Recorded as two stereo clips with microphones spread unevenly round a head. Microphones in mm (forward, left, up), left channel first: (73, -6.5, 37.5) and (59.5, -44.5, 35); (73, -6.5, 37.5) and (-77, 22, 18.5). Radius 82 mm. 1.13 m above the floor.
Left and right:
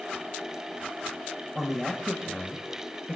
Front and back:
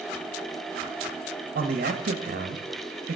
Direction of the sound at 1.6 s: 165° left.